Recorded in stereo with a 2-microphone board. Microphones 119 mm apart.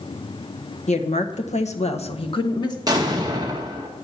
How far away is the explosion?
About 2 m.